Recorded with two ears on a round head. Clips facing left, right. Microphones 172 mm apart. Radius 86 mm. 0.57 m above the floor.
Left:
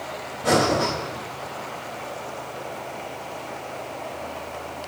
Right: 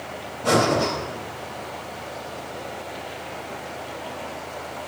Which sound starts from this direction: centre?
Breathing, at 0.4 s.